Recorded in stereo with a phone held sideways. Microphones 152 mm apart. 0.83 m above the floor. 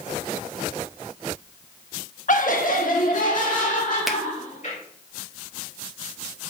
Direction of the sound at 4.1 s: Centre (ahead or behind).